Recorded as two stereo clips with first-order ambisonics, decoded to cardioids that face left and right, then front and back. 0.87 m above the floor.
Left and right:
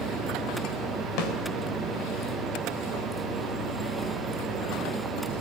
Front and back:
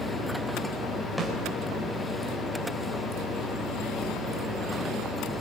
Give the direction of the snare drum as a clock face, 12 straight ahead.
9 o'clock.